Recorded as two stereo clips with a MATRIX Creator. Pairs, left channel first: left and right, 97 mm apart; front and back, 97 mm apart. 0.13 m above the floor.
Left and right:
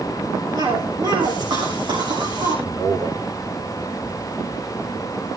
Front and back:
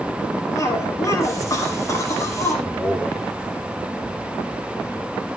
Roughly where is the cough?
Ahead right.